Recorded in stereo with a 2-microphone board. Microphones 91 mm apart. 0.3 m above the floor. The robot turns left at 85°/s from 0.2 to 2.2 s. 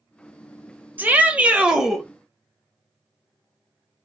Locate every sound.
1.0 s a shout: 20° right (ahead or behind), 0.9 m; by 2.0 s centre (ahead or behind), 0.9 m